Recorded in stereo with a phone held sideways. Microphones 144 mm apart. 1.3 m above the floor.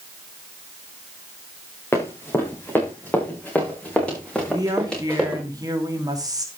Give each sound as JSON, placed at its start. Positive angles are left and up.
{"t": 1.9, "sound": "running footsteps", "side_deg": 15, "distance_m": 6.0}
{"t": 4.5, "sound": "a woman speaking", "side_deg": -25, "distance_m": 3.0}